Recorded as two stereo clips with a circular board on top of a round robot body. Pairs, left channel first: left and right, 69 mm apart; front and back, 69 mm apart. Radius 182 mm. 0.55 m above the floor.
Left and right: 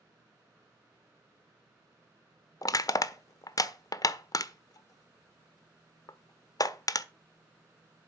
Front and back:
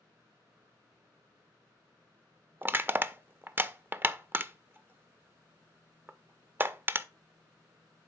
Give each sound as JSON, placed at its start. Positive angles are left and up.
{"t": 2.6, "sound": "crushing", "azimuth_deg": 120, "distance_m": 0.7}